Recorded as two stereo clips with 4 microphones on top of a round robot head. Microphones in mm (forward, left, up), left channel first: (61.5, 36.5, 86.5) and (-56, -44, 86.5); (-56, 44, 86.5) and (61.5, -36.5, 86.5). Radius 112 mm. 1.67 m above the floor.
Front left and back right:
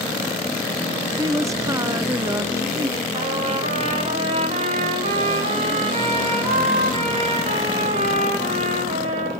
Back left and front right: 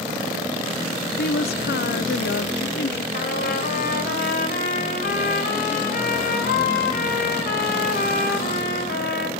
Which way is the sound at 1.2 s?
145° left.